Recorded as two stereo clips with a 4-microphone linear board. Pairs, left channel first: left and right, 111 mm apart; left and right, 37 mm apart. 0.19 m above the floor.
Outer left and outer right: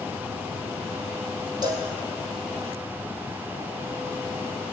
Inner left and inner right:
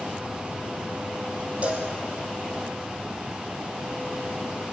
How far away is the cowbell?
About 3 m.